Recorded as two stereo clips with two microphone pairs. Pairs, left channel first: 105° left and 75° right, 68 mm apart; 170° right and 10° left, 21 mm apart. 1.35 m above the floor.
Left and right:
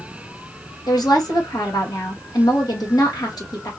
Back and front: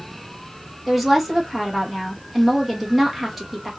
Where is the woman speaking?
95° left, 1.6 m.